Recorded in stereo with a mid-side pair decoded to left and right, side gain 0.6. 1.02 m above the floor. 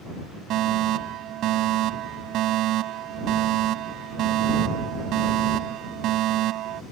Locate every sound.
0.5 s a fire alarm: 60° right